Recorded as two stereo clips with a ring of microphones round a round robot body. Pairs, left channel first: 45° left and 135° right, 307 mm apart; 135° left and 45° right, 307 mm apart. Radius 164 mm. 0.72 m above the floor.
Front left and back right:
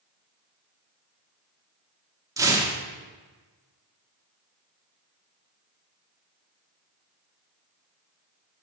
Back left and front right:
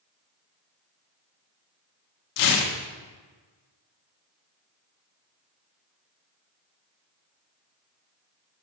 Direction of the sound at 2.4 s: 145° left.